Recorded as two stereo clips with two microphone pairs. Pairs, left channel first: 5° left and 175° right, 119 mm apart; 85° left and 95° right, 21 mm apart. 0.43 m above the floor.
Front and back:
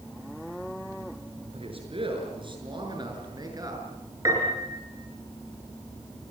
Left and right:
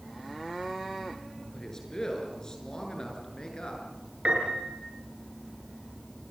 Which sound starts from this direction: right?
A piano, at 4.2 s.